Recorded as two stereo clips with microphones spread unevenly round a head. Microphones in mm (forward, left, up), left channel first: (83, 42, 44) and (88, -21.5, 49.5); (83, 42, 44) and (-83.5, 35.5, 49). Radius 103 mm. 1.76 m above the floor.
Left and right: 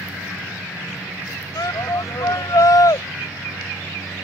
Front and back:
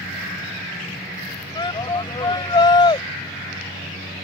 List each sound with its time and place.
1.6 s a shout: 65° left